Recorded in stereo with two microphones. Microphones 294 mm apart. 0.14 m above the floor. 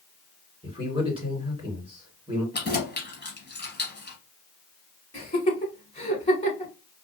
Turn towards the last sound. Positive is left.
turn(degrees=20)  # may be behind; listen again after turning